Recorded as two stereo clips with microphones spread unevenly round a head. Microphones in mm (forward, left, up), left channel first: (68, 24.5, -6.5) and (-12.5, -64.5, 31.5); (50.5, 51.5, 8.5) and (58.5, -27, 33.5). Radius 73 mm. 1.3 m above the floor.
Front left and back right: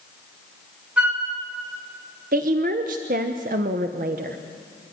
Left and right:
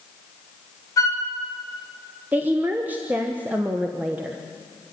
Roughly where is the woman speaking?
Behind.